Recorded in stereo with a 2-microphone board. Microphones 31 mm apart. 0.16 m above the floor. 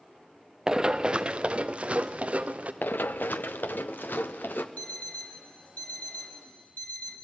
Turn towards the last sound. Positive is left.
turn(degrees=55)  # may be behind; listen again after turning